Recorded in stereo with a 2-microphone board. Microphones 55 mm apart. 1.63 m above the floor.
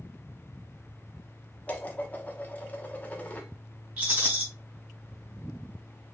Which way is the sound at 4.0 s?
35° right (ahead or behind).